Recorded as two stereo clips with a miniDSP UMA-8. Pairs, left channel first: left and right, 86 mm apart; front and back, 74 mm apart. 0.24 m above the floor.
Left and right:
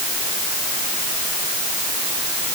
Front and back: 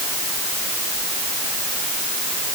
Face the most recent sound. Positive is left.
No sound to turn to.